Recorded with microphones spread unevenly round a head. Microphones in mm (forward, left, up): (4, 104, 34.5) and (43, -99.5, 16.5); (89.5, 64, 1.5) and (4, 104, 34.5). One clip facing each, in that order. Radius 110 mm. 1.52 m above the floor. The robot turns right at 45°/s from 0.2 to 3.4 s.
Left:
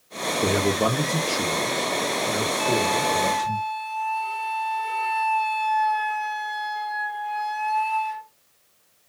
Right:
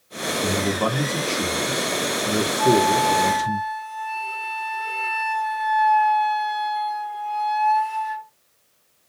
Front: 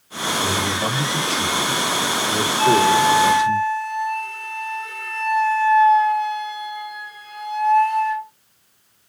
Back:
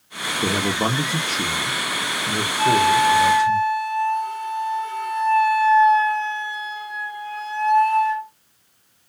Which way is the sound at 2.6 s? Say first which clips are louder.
Right 8 dB, front 1 dB; 160° left.